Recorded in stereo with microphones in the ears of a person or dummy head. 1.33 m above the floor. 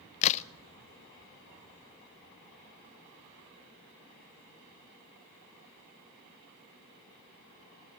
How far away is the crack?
About 0.5 m.